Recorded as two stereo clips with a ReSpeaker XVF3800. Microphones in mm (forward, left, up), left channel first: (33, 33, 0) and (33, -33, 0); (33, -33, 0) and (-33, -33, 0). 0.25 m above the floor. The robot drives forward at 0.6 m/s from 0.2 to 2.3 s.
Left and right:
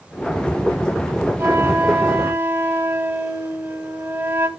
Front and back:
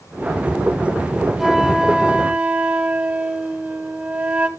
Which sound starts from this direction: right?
A flute, at 1.4 s.